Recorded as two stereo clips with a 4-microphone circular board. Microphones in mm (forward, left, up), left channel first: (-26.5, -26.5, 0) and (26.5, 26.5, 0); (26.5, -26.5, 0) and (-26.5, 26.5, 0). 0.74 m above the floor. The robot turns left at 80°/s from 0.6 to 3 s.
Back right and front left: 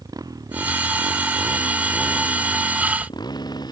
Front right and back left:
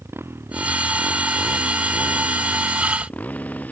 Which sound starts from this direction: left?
A motorcycle, at 0.0 s.